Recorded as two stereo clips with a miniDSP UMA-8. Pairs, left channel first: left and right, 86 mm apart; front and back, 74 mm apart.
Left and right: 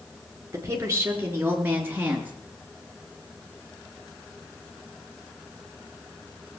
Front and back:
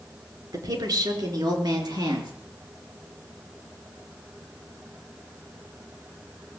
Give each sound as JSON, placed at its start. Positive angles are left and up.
{"t": 0.5, "sound": "a woman speaking", "azimuth_deg": -150, "distance_m": 4.0}